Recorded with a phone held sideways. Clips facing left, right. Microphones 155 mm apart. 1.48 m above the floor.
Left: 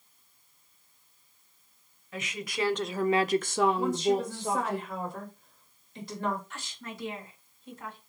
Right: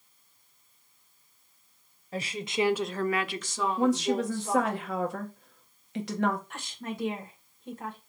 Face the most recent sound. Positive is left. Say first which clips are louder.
# right 5 dB
turn(degrees=-60)  # may be behind; listen again after turning